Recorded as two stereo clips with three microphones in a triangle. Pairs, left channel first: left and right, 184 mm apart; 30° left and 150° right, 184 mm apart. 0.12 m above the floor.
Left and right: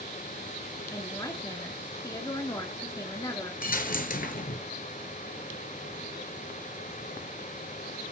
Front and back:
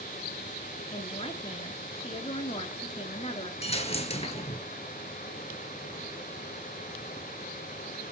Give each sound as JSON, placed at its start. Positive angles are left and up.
{"t": 0.9, "sound": "a woman speaking", "azimuth_deg": 40, "distance_m": 1.8}
{"t": 3.6, "sound": "a dropped coin", "azimuth_deg": 75, "distance_m": 1.1}